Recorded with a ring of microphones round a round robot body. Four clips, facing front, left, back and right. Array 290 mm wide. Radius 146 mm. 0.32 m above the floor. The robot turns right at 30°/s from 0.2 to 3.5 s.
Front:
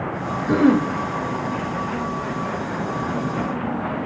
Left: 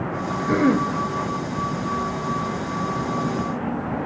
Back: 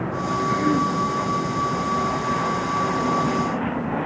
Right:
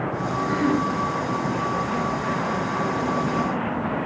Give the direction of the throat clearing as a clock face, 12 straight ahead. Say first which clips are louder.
Left 4 dB, front 6 dB; 11 o'clock.